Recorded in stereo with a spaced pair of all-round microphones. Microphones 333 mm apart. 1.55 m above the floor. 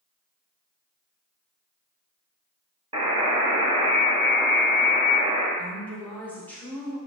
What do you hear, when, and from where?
2.9 s a buzzer: 15° right (ahead or behind), 1.0 m
5.6 s a woman speaking: 5° left (ahead or behind), 1.2 m